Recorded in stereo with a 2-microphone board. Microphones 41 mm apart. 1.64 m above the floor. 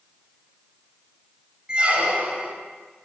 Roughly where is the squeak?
Right.